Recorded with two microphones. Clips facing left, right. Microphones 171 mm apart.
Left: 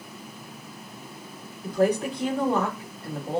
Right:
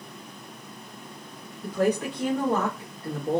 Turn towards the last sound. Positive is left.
turn(degrees=-45)  # may be behind; listen again after turning